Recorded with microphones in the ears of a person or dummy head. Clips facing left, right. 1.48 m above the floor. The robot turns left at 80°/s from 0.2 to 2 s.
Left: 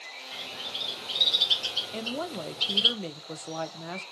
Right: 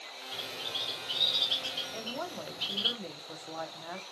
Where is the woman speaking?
50° left (ahead or behind), 0.7 m; by 4.0 s 45° left (ahead or behind), 0.7 m.